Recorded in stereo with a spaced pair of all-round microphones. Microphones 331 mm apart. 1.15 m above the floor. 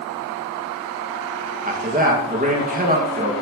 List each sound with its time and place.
1.6 s a man speaking: 25° right (ahead or behind), 1.8 m